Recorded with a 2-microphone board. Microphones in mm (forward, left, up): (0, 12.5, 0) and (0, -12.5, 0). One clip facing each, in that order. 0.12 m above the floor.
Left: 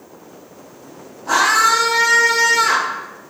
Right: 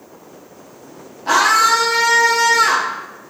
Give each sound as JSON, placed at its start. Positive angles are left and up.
{"t": 1.3, "sound": "a scream", "side_deg": -55, "distance_m": 2.0}